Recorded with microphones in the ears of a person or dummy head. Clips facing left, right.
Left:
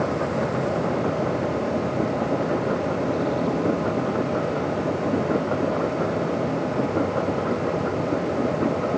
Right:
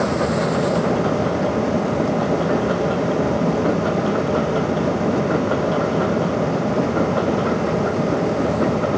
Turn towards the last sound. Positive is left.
turn(degrees=-50)  # may be behind; listen again after turning